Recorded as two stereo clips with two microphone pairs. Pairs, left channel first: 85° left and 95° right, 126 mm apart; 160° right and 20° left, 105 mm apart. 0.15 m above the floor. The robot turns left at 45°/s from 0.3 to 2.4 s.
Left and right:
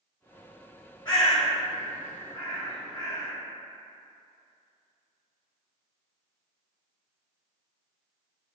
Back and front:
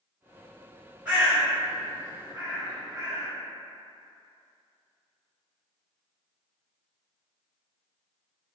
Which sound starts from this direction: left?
A bird, at 1.1 s.